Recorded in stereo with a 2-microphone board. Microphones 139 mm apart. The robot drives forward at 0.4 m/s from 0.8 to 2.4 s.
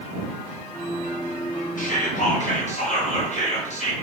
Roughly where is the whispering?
Left.